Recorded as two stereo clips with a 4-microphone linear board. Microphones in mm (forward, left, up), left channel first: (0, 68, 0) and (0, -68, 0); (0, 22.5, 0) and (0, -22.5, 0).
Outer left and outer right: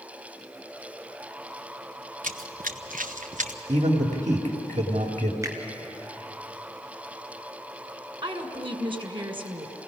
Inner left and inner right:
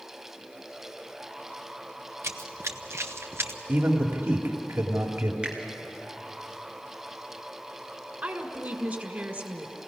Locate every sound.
2.2 s running footsteps: 65° right (ahead or behind), 0.7 m; by 3.6 s 60° right (ahead or behind), 1.7 m
3.7 s a man speaking: 60° right (ahead or behind), 2.5 m
5.4 s a finger snap: 20° right (ahead or behind), 2.5 m
8.2 s a woman speaking: 35° right (ahead or behind), 2 m